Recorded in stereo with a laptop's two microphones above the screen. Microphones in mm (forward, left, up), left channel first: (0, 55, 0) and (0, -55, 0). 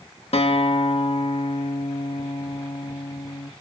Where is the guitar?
60° left (ahead or behind), 1.3 m.